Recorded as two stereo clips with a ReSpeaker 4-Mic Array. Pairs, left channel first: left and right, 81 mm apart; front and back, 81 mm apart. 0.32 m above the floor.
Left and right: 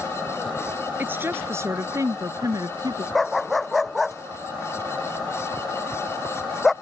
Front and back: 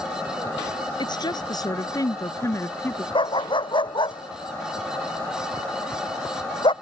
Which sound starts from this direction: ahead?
A dog barking, at 3.1 s.